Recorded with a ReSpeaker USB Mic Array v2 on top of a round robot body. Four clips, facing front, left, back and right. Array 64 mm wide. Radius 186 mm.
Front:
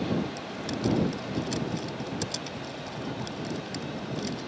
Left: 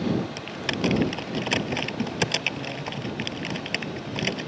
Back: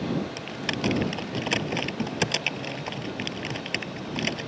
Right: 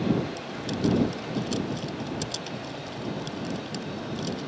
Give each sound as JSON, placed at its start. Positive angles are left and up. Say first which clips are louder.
{"t": 0.4, "sound": "typing on a keyboard", "louder": "left 1 dB, back 2 dB", "azimuth_deg": 135}